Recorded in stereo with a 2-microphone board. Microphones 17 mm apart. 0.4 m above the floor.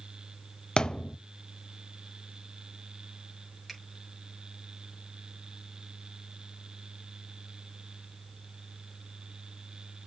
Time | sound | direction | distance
0.8 | a thud | 50° left (ahead or behind) | 0.6 m
3.7 | a finger snap | 5° left (ahead or behind) | 6.5 m